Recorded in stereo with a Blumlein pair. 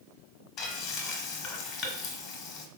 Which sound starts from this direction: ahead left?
Frying, at 0.6 s.